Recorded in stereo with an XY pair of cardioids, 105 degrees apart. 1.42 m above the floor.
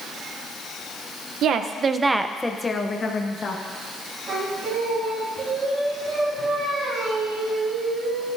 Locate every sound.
1.4 s a woman speaking: 70° right, 1.0 m; by 3.6 s 40° left, 1.9 m
4.3 s singing: 65° right, 4 m